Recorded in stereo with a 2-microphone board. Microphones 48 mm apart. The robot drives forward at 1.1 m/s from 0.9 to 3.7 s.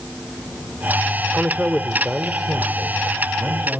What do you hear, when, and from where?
1.3 s a man speaking: 25° right (ahead or behind), 1.0 m; by 3.8 s 10° right (ahead or behind), 2.5 m